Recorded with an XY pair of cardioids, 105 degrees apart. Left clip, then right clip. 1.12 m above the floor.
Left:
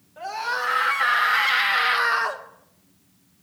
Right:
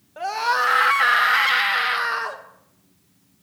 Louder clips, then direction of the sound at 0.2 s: Right 6 dB; 60° right.